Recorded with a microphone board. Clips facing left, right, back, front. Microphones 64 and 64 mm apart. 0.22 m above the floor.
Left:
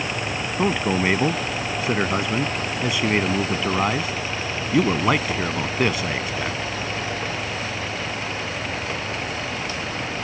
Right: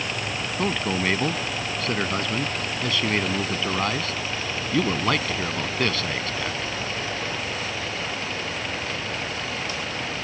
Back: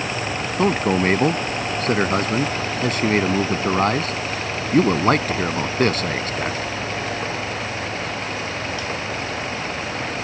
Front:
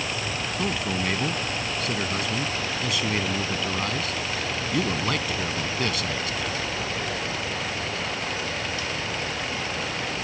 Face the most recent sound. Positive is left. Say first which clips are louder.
# left 4 dB, back 11 dB
turn(degrees=160)